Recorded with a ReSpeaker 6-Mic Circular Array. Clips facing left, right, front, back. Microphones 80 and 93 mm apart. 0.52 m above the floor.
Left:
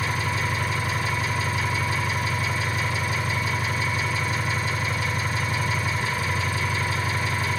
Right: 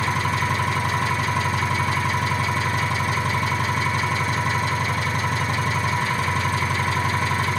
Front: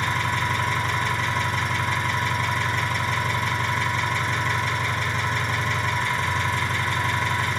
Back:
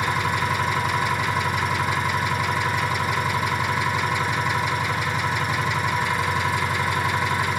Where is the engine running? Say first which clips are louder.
Right 4 dB, back 2 dB; 100° right, 2.5 m.